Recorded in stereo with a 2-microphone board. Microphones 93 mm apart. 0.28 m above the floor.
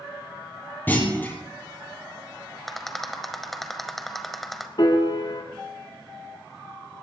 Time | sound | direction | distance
0.9 | a clunk | 20° left (ahead or behind) | 3 m
2.7 | a rattle | centre (ahead or behind) | 1.2 m
4.8 | a piano | 55° left (ahead or behind) | 2.0 m